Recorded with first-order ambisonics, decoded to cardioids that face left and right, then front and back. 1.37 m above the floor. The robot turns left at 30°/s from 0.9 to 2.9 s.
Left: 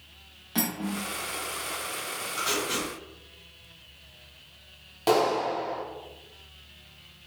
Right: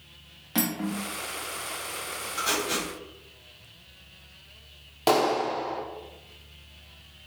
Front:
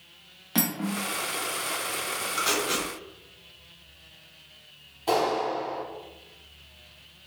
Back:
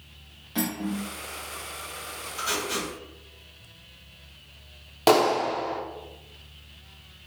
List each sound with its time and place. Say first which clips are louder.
0.6 s cutlery clinking: right 1 dB, front 1 dB; 20° right, 0.7 m; by 1.0 s 25° right, 0.7 m
2.4 s tape being pulled: right 1 dB, front 1 dB; straight ahead, 1.6 m; by 2.9 s 15° right, 1.6 m
5.1 s a clap: right 1 dB, back 4 dB; 165° right, 0.6 m